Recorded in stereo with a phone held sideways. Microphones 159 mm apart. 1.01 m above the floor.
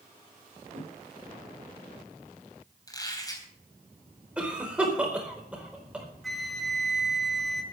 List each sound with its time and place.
0.7 s a whoosh: 40° right (ahead or behind), 3 m
2.9 s a squeak: 25° left (ahead or behind), 3.5 m
4.4 s a cough: 5° right (ahead or behind), 4 m
6.2 s a flute: centre (ahead or behind), 1.7 m